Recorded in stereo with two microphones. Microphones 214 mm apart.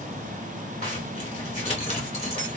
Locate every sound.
0.8 s a zipper: 30° left (ahead or behind), 1.3 m